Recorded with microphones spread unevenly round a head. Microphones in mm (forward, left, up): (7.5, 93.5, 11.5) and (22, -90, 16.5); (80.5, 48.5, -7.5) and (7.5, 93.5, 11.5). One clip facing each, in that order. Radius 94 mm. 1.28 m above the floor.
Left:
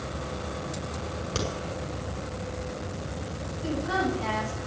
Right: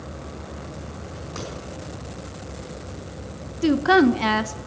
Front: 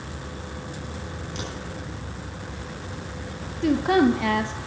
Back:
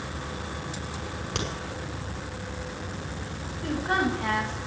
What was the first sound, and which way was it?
A crack, 145° left.